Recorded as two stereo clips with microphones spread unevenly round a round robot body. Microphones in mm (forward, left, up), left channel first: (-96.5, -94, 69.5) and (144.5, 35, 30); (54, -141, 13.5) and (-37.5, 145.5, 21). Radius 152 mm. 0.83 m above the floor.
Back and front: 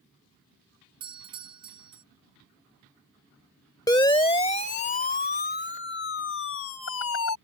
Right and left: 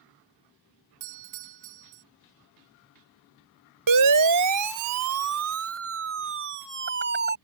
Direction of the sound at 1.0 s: 100° left.